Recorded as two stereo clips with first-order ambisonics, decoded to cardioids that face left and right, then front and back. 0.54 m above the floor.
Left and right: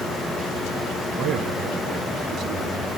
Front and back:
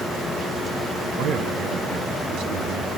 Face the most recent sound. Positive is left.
turn(degrees=-145)